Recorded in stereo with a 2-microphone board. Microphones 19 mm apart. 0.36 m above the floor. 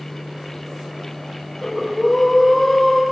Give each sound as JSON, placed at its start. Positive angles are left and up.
{"t": 1.6, "sound": "breathing", "side_deg": 15, "distance_m": 4.5}